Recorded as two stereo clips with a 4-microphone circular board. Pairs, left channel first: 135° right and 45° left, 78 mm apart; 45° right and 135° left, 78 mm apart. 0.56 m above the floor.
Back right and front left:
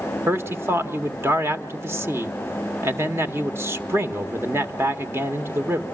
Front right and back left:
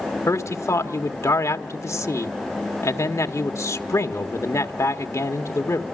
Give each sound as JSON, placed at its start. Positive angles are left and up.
{"t": 0.3, "sound": "a man speaking", "azimuth_deg": -5, "distance_m": 1.5}